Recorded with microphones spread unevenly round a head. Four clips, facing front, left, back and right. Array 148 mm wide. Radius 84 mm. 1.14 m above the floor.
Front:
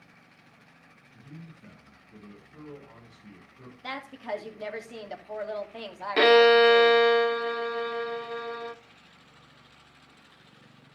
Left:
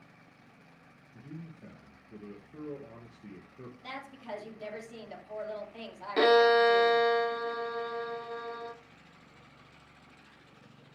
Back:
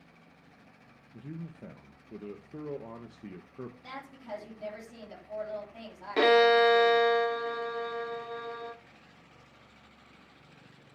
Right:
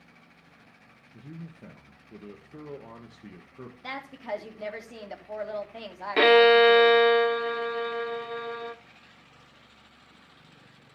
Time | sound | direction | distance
1.1 | a man speaking | 170° right | 1.1 m
3.8 | a woman speaking | 35° right | 2.5 m
6.2 | a violin | 50° right | 0.8 m